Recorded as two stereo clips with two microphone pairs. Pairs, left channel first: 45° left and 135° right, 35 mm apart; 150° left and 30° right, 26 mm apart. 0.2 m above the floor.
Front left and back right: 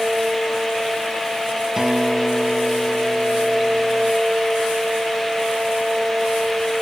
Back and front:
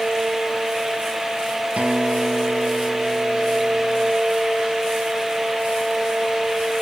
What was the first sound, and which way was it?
A guitar, 60° right.